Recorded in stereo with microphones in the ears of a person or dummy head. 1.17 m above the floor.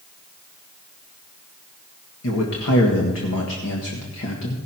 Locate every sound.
2.2 s a man speaking: 70° left (ahead or behind), 1.8 m